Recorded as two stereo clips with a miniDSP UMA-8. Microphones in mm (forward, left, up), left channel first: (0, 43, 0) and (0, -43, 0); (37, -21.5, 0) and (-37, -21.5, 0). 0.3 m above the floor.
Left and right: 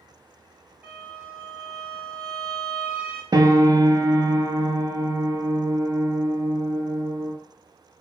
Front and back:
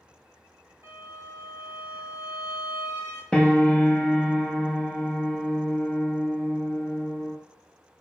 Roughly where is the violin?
Behind.